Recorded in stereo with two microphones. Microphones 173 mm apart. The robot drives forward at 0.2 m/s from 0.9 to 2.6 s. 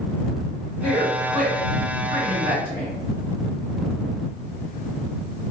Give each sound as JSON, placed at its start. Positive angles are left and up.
{"t": 0.8, "sound": "a man speaking", "side_deg": 55, "distance_m": 1.8}